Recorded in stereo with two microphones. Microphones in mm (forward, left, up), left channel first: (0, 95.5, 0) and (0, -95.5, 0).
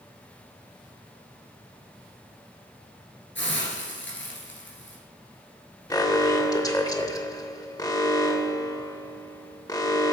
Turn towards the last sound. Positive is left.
turn(degrees=20)  # may be behind; listen again after turning